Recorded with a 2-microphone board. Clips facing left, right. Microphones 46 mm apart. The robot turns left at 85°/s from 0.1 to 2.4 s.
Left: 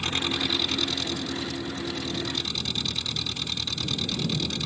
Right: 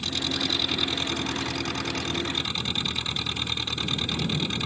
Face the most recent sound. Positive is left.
turn(degrees=-150)